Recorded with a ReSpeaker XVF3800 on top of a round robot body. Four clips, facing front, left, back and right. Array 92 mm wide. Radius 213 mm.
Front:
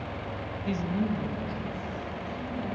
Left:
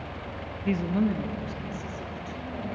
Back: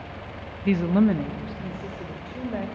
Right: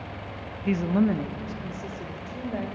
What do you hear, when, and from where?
0.7 s a woman speaking: 175° right, 0.9 m; by 2.6 s 150° right, 3.5 m